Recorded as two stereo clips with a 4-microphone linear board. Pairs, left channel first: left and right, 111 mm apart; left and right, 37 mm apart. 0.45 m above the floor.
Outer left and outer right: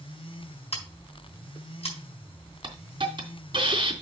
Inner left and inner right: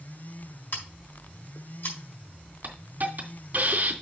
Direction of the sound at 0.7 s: 70° left (ahead or behind).